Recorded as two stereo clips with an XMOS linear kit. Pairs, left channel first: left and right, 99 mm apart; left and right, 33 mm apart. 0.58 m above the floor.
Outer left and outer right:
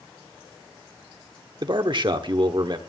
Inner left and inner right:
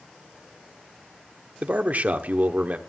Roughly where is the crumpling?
I don't hear crumpling.